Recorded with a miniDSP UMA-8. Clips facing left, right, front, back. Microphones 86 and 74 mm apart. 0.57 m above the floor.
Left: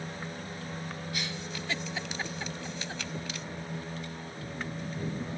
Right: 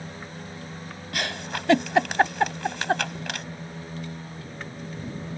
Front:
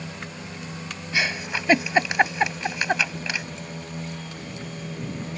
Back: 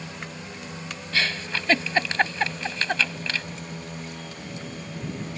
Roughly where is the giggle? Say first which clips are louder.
Right 7 dB, front 1 dB; right.